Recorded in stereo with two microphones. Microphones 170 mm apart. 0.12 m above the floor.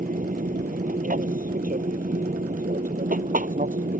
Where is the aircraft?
55° right (ahead or behind); by 4.0 s 60° right (ahead or behind).